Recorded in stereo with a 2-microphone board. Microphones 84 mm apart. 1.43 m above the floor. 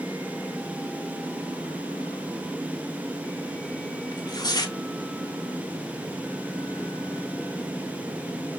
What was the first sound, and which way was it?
Tearing paper, 50° left (ahead or behind).